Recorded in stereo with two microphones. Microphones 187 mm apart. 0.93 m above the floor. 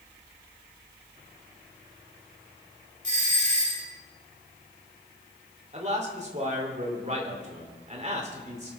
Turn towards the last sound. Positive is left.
turn(degrees=-35)  # may be behind; listen again after turning